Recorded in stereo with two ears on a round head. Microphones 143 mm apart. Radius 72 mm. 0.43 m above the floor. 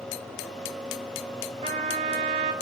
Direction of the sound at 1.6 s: 40° right (ahead or behind).